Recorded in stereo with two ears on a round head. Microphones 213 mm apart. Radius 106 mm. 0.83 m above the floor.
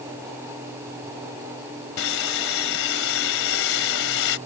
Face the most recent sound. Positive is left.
turn(degrees=60)  # may be behind; listen again after turning